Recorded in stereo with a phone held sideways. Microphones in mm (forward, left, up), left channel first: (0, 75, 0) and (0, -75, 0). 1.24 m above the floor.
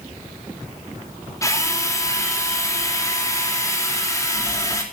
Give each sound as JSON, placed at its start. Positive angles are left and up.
{"t": 1.4, "sound": "a drill", "side_deg": 20, "distance_m": 3.5}